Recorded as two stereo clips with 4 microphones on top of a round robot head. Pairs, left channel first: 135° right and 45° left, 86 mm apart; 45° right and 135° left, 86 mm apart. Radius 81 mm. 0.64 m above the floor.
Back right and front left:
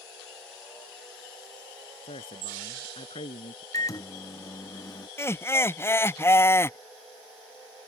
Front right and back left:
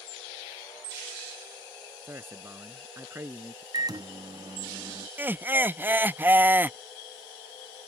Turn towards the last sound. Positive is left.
turn(degrees=-175)